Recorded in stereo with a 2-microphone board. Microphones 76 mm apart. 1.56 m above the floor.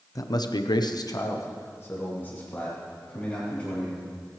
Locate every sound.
0.1 s a man speaking: 50° left (ahead or behind), 0.9 m; by 4.3 s 20° left (ahead or behind), 4.5 m